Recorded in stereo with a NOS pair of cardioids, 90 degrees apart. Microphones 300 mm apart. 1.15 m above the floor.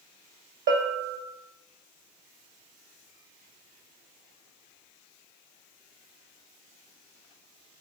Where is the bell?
40° right, 1.0 m.